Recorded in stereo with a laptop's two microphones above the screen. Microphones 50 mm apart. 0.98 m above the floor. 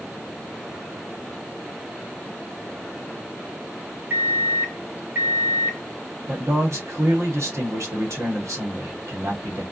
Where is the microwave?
50° right (ahead or behind), 0.7 m.